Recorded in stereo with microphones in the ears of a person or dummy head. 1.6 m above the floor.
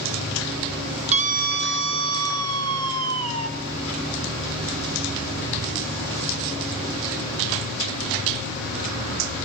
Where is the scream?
35° right (ahead or behind), 1.1 m; by 3.5 s 85° right, 2.5 m.